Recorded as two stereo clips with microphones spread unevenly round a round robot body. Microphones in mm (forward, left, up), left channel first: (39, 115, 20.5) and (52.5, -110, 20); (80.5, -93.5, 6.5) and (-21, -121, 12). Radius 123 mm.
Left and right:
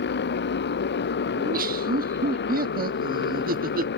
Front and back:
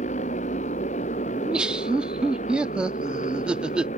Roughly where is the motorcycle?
Ahead left.